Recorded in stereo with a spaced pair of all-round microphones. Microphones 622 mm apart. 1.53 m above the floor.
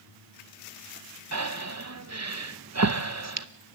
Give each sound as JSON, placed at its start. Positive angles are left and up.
{"t": 1.3, "sound": "breathing", "side_deg": -25, "distance_m": 0.7}